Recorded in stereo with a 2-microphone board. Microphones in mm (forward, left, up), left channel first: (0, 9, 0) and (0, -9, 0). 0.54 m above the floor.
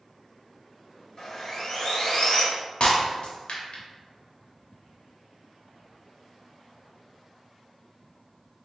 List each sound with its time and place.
1.2 s sawing: 45° left (ahead or behind), 1.4 m
2.8 s breaking glass: 75° left (ahead or behind), 0.8 m